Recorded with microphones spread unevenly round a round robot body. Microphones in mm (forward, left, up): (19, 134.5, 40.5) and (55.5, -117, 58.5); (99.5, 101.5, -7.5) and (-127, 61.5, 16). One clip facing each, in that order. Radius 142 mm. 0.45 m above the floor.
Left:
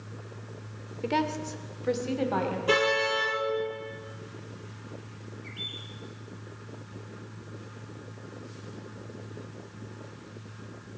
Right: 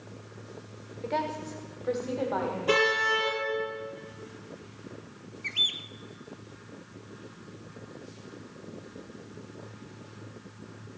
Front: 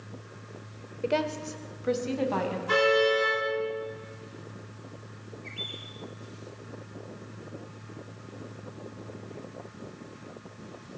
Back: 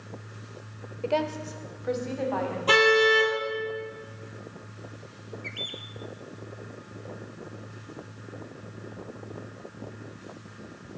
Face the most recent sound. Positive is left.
turn(degrees=-105)